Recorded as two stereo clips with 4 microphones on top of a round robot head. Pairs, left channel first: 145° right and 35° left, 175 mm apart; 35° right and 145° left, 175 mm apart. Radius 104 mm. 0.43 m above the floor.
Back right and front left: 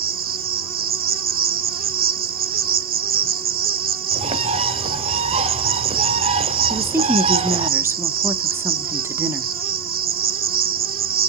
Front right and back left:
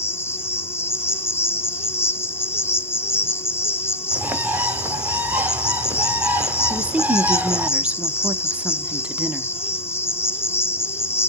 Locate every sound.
0.0 s an insect: 40° left, 0.8 m
4.1 s a bird: 70° left, 1.1 m
6.7 s a woman speaking: 80° left, 0.7 m